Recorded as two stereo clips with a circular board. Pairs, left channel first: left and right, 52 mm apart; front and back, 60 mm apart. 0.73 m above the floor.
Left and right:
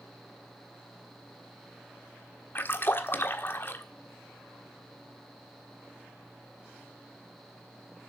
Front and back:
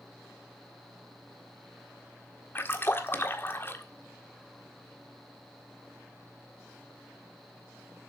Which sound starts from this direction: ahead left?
A splash, at 2.5 s.